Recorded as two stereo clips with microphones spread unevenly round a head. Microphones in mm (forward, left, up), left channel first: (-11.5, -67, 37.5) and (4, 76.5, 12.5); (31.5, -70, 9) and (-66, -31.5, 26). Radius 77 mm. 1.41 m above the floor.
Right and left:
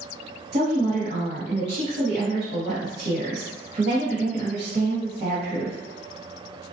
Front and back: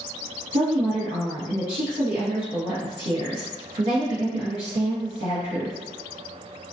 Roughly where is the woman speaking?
Behind left.